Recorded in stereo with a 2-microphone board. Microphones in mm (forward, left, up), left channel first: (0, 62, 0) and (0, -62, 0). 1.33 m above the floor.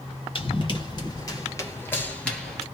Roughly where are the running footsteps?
Left.